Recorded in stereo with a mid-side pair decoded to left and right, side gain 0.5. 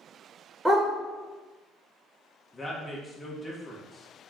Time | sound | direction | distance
0.7 | a dog barking | 5° right | 1.6 m
2.5 | a woman speaking | 30° left | 1.3 m